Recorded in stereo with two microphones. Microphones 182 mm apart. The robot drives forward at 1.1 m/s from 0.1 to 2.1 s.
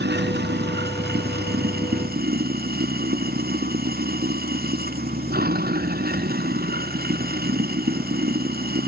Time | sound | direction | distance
0.0 | running water | 70° right (ahead or behind) | ?